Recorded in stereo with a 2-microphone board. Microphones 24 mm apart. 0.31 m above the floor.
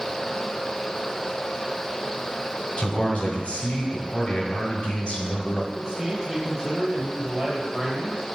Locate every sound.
2.8 s a man speaking: 50° left (ahead or behind), 1.7 m
5.7 s a man speaking: 30° right (ahead or behind), 1.4 m